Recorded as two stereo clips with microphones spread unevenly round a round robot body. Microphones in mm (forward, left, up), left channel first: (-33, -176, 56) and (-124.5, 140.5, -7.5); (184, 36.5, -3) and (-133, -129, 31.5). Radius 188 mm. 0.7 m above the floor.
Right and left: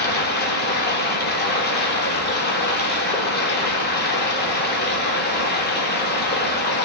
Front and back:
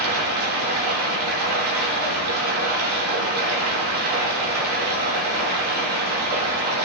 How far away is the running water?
About 1.8 m.